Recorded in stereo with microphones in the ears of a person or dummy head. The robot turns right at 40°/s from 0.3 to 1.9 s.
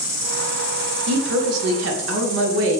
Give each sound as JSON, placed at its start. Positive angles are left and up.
{"t": 0.0, "sound": "an insect", "azimuth_deg": -145, "distance_m": 1.2}
{"t": 1.1, "sound": "a woman speaking", "azimuth_deg": -115, "distance_m": 0.6}